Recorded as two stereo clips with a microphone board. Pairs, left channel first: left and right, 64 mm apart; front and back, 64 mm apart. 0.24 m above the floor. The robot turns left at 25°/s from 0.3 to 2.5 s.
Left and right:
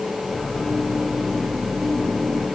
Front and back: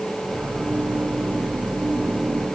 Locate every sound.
Only background noise.